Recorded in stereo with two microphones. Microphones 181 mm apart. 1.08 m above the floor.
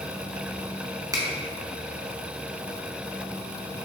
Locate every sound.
1.1 s a finger snap: 15° right (ahead or behind), 0.7 m